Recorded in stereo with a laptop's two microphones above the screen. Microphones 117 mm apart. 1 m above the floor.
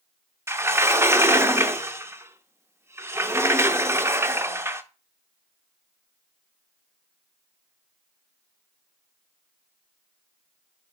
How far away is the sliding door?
About 0.6 m.